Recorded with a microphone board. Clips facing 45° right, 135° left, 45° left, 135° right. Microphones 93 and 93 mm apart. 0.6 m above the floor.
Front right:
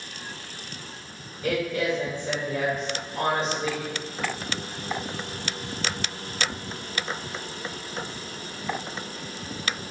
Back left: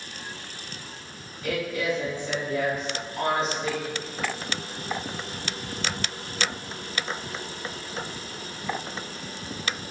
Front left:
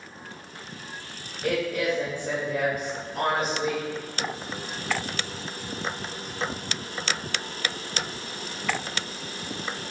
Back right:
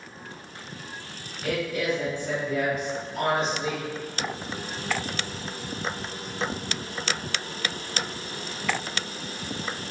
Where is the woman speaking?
5° left, 2 m.